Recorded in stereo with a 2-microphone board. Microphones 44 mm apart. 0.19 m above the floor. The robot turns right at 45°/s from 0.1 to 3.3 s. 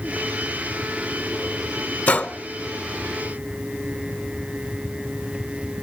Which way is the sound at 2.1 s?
40° left (ahead or behind).